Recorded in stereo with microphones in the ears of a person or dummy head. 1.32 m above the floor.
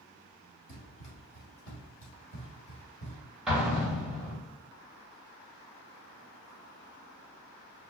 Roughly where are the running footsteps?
Left.